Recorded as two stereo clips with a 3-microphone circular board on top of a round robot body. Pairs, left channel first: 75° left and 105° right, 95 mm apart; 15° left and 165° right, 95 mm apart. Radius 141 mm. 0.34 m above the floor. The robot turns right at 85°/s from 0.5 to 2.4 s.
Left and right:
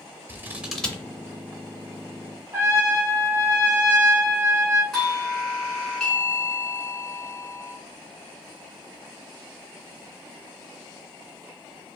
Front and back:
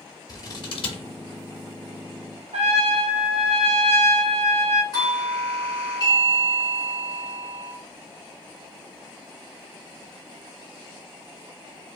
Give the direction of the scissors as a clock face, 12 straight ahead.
1 o'clock.